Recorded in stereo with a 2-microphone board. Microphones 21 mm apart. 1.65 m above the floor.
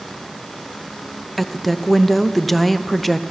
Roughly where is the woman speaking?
Centre.